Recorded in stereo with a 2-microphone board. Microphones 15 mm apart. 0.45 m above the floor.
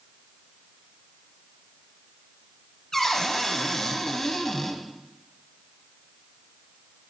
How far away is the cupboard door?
About 1.1 m.